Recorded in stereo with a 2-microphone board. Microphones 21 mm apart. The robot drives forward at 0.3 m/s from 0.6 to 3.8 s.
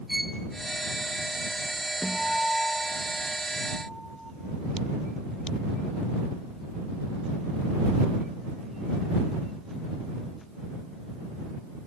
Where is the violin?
10° right (ahead or behind), 0.8 m.